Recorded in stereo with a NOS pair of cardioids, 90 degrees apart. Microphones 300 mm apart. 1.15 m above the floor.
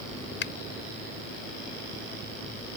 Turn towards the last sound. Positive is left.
turn(degrees=40)